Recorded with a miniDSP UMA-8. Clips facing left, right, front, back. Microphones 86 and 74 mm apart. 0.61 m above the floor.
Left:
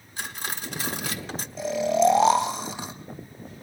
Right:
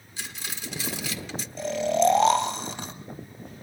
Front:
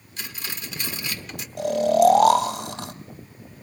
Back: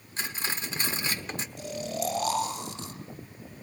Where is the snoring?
5° left, 1.2 m.